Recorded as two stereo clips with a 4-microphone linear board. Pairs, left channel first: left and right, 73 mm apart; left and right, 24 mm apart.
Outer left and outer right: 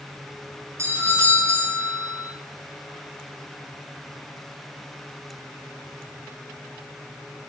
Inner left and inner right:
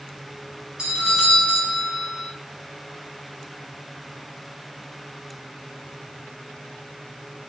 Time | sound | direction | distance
0.8 | a doorbell | 40° right (ahead or behind) | 3.5 m